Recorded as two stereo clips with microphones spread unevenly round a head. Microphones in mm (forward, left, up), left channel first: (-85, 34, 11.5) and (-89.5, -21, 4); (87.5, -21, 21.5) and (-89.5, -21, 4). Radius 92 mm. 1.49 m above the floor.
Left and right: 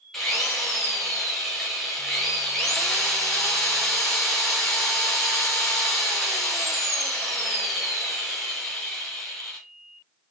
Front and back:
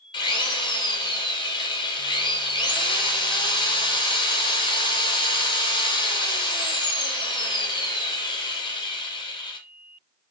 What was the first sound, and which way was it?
A drill, 20° left.